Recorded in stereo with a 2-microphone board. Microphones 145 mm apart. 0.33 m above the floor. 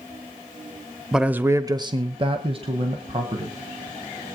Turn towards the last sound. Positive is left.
turn(degrees=-40)  # may be behind; listen again after turning